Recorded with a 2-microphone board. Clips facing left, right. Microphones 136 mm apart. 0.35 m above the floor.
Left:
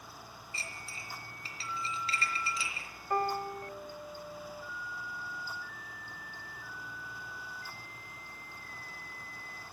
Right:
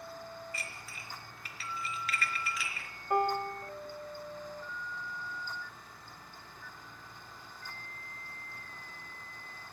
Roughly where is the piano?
Centre.